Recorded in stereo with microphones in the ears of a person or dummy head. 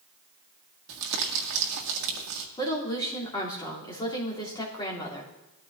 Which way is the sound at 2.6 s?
20° left (ahead or behind).